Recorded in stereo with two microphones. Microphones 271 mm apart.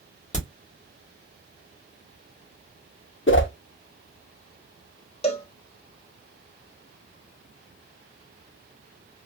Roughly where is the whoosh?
Left.